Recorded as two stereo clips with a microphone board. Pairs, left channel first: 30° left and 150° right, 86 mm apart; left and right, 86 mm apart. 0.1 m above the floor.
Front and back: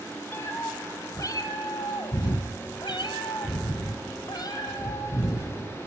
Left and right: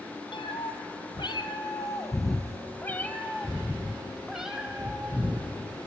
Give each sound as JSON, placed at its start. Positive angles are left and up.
{"t": 0.3, "sound": "a cat meowing", "azimuth_deg": 90, "distance_m": 1.5}